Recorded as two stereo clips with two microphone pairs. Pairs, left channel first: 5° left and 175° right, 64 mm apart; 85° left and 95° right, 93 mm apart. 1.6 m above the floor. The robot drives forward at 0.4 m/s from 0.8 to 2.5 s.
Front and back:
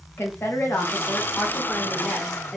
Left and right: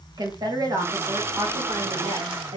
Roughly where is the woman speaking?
Ahead right.